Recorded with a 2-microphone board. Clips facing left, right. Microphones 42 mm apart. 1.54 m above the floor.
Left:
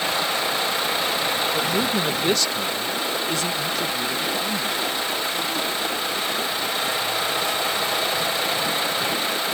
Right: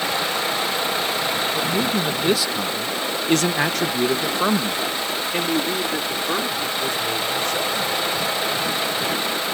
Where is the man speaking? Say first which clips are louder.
Right 1 dB; 15° left (ahead or behind); by 8.1 s 55° right (ahead or behind).